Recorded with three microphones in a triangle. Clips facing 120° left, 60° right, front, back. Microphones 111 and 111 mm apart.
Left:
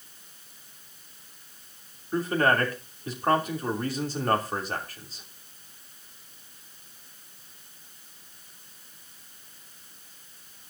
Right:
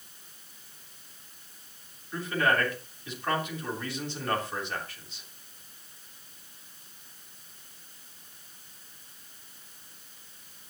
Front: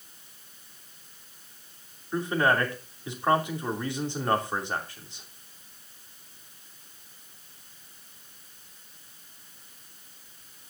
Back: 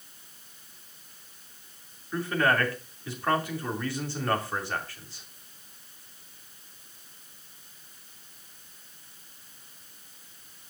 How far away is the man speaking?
About 3 m.